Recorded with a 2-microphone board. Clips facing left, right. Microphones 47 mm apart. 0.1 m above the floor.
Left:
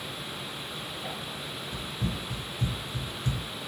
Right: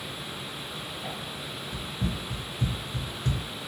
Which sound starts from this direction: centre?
Running footsteps, at 1.7 s.